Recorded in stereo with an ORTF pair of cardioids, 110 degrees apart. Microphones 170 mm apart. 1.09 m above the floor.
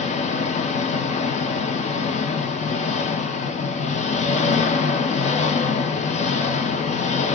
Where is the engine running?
40° left, 0.8 m.